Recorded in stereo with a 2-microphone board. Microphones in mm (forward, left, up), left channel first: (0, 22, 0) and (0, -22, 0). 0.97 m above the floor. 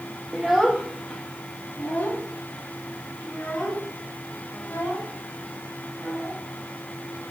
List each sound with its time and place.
0.3 s a child speaking: 10° right (ahead or behind), 0.5 m; by 6.4 s 60° left (ahead or behind), 3.5 m